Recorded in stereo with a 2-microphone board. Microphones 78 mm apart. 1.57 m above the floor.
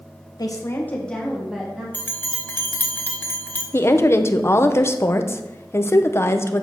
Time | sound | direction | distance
0.4 | a woman speaking | 55° left (ahead or behind) | 1.2 m
1.9 | a bell | 25° left (ahead or behind) | 1.0 m
3.7 | a woman speaking | 35° left (ahead or behind) | 0.7 m